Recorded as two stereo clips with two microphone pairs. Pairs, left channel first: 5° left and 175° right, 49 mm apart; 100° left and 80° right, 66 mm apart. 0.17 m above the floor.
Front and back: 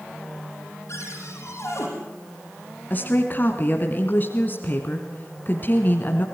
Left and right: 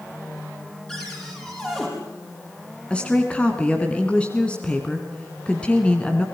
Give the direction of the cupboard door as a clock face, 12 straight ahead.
11 o'clock.